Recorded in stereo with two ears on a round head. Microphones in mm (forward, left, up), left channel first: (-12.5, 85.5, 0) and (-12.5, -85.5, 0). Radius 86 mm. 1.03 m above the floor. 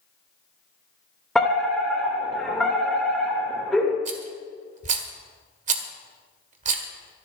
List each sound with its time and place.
1.4 s a fire alarm: centre (ahead or behind), 2.5 m
4.0 s a rattle: 40° right (ahead or behind), 1.6 m